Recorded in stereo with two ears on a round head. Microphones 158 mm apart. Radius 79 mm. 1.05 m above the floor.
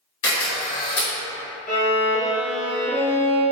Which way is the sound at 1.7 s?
45° left (ahead or behind).